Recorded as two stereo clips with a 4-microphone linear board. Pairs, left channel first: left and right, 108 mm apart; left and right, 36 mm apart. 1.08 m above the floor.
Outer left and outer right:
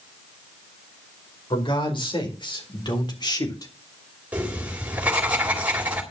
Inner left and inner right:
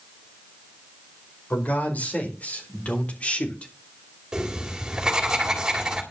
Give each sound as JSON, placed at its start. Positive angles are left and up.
{"t": 1.5, "sound": "a man speaking", "side_deg": 50, "distance_m": 4.5}
{"t": 4.3, "sound": "writing", "side_deg": -15, "distance_m": 3.5}